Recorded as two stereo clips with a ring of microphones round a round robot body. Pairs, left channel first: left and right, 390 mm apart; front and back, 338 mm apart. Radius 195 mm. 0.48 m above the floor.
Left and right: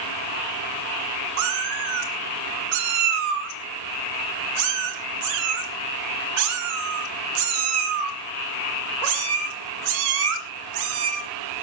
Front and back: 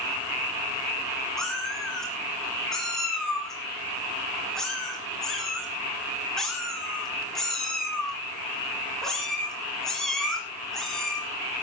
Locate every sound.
1.4 s a cat meowing: 90° right, 2.5 m